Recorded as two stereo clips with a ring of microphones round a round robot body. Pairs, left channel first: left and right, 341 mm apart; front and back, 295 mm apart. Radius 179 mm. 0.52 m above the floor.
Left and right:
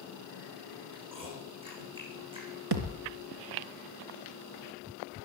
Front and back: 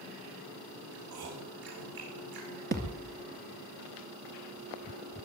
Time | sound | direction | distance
0.9 | chewing | 165° right | 8.5 m
2.7 | a thud | 115° right | 2 m